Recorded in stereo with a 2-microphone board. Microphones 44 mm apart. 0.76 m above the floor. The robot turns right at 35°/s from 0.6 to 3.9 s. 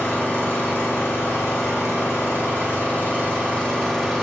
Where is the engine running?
55° left, 1.1 m; by 4.2 s 170° left, 1.1 m.